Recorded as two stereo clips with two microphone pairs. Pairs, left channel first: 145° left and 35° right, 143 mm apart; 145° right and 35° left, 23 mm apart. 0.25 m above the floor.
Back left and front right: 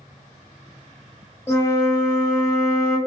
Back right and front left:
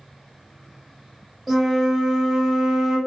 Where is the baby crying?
I don't hear a baby crying.